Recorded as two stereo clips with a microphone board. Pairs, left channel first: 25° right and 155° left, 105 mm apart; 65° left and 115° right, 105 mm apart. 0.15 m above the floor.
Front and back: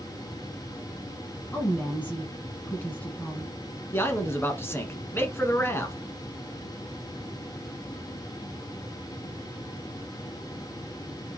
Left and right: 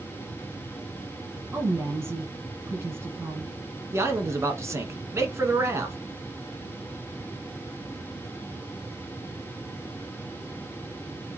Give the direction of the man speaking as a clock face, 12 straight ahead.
2 o'clock.